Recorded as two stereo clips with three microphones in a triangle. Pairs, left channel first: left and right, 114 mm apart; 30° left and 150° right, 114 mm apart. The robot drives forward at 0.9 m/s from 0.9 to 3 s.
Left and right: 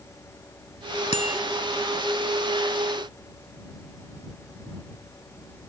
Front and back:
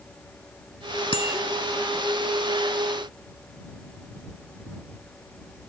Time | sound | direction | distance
1.1 | a bicycle bell | 70° left | ?